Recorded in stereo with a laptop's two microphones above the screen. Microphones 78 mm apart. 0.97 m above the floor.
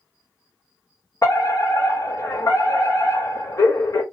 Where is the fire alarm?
45° left (ahead or behind), 2.5 m.